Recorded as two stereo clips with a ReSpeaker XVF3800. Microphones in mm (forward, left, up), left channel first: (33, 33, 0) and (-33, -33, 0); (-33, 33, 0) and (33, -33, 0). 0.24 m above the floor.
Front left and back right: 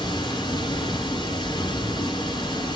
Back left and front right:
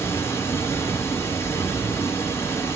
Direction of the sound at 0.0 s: 75° left.